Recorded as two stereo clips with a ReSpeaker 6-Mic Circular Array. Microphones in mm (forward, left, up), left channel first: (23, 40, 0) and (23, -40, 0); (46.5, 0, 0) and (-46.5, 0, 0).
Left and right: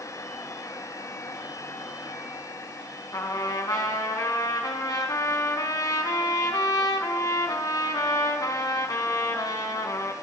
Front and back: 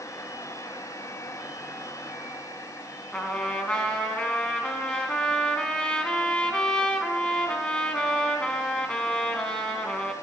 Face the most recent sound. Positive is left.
turn(degrees=80)